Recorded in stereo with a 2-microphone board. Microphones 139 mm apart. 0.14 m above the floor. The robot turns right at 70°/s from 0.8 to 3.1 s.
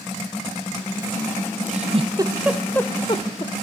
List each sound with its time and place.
1.7 s a giggle: 65° right (ahead or behind), 1.1 m; by 3.5 s 35° left (ahead or behind), 1.1 m